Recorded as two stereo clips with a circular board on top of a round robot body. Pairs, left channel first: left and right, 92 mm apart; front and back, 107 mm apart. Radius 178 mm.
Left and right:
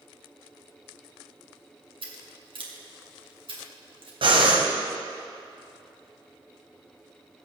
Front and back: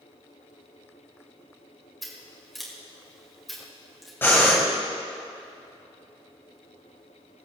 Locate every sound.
2.0 s scissors: 90° right, 2.5 m
4.2 s breathing: 70° right, 1.7 m